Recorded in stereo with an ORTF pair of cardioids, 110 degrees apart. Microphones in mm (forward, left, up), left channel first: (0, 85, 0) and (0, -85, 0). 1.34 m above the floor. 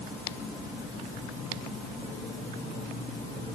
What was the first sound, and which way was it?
Only background noise.